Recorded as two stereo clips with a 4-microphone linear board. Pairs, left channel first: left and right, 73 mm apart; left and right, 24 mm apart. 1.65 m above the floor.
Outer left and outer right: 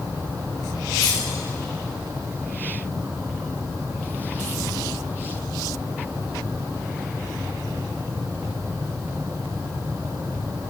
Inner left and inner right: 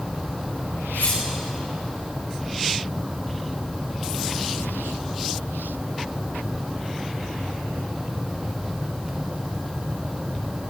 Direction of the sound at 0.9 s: 80° left.